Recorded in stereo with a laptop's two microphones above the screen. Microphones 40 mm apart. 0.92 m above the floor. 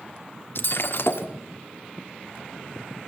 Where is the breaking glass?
65° left (ahead or behind), 1.4 m.